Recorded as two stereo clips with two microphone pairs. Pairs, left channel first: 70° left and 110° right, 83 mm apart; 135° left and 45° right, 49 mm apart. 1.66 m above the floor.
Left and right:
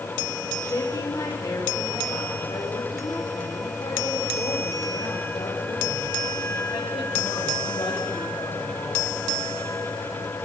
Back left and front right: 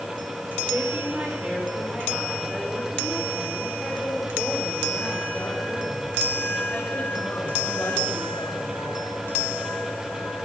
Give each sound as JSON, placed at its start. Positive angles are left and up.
{"t": 0.6, "sound": "a woman speaking", "azimuth_deg": 15, "distance_m": 6.0}